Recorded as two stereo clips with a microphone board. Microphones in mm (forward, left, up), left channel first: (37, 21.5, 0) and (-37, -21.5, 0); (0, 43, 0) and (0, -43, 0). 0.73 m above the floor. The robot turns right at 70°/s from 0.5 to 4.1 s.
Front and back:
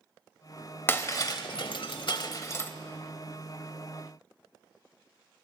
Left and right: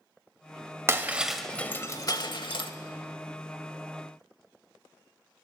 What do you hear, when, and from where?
0.9 s breaking glass: 35° right, 0.9 m; by 2.7 s 95° left, 0.9 m